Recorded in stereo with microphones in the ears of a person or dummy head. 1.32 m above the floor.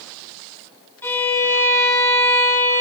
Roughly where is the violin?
Centre.